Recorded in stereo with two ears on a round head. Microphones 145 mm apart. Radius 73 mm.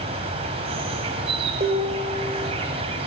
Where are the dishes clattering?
40° right (ahead or behind), 4 m.